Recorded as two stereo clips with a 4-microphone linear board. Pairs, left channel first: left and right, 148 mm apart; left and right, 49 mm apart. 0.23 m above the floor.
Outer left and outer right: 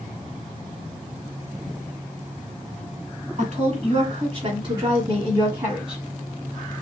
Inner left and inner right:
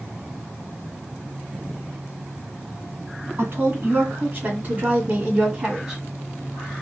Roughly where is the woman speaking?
Right.